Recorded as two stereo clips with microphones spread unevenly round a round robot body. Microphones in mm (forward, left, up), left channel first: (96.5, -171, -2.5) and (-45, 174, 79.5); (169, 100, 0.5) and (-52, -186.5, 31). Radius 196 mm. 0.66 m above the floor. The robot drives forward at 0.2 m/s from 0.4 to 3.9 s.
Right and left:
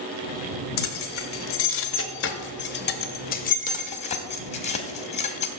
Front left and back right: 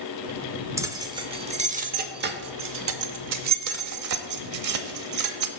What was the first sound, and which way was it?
Keys jangling, 45° right.